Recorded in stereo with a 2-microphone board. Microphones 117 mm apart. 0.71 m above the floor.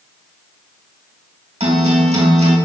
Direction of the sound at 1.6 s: 75° right (ahead or behind).